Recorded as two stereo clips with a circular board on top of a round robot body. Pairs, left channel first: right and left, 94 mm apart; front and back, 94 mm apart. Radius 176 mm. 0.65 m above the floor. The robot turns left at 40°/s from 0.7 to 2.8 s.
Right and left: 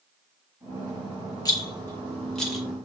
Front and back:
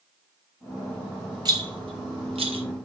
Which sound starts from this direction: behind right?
A rattle, at 1.4 s.